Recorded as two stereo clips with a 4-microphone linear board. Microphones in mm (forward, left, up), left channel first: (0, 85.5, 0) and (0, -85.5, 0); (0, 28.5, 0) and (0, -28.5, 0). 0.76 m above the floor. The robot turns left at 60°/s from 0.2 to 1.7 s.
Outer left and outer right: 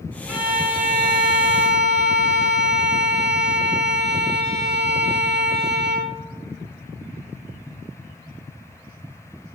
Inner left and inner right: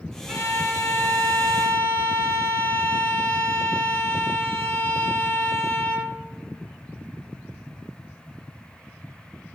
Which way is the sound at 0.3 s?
5° right.